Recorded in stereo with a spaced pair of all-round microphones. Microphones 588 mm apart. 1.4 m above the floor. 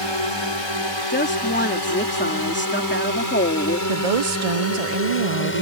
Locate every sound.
0.0 s a drone: 50° left (ahead or behind); by 5.6 s 20° left (ahead or behind)
1.1 s a woman speaking: 20° left (ahead or behind)
3.9 s a woman speaking: 70° right (ahead or behind)